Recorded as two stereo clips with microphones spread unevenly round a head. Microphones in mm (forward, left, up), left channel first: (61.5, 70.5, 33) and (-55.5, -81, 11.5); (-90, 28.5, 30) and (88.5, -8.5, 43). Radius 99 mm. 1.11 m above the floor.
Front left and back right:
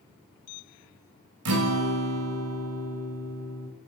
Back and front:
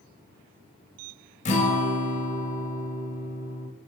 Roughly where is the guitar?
Behind right.